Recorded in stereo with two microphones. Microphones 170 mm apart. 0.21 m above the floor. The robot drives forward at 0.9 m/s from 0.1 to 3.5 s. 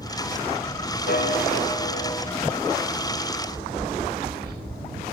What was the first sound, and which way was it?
A piano, 65° left (ahead or behind).